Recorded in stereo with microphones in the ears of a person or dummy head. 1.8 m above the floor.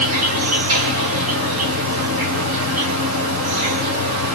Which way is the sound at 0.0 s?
80° right.